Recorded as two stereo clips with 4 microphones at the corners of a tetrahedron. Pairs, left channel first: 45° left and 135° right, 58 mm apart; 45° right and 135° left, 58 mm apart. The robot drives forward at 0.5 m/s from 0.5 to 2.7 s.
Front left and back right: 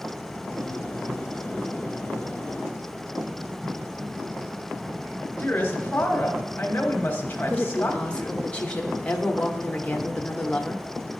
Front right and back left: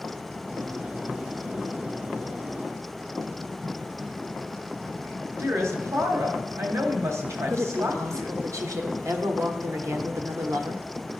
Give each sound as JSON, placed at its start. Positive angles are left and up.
{"t": 5.4, "sound": "a woman speaking", "azimuth_deg": 100, "distance_m": 1.0}
{"t": 7.5, "sound": "a woman speaking", "azimuth_deg": 115, "distance_m": 0.9}